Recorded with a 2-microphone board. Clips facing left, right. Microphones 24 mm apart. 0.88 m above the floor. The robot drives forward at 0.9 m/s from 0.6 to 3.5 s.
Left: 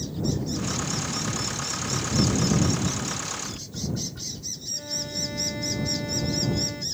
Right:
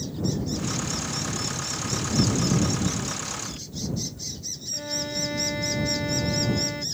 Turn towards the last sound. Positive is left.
turn(degrees=-20)  # may be behind; listen again after turning